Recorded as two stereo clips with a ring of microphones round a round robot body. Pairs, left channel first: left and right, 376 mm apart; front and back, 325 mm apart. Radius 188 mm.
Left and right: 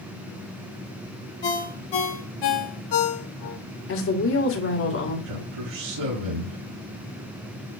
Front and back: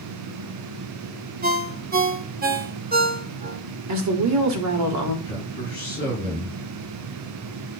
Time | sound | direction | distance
1.4 | a ringtone | 115° left | 1.5 m
3.9 | a woman speaking | 145° left | 2.5 m
5.2 | a man speaking | 105° right | 5 m